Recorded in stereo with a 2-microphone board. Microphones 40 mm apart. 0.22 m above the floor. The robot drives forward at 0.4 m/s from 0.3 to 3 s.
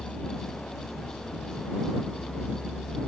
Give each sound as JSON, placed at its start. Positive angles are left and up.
{"t": 0.0, "sound": "a vehicle", "side_deg": 45}